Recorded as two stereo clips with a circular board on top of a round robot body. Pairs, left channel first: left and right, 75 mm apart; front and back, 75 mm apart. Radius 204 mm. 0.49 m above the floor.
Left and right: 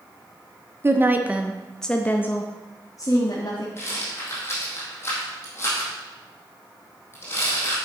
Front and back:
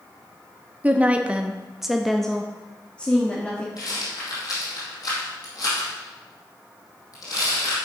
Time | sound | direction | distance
0.8 | a woman speaking | 120° right | 1.4 m
3.8 | a rattle | 30° left | 4 m